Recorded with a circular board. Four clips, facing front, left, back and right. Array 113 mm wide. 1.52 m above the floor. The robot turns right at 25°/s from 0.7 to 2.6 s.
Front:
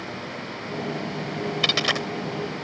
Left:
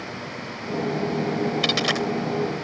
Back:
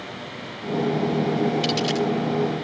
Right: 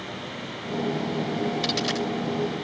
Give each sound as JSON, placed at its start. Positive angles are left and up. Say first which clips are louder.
{"t": 1.6, "sound": "a dropped coin", "louder": "left 3 dB, back 4 dB", "azimuth_deg": 30}